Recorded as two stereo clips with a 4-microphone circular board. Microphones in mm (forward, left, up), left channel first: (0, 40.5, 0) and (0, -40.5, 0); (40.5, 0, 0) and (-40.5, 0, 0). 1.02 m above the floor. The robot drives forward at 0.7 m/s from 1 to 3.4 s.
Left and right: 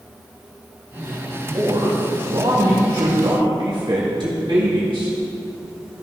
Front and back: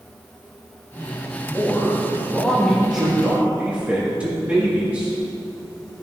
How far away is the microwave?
I don't hear a microwave.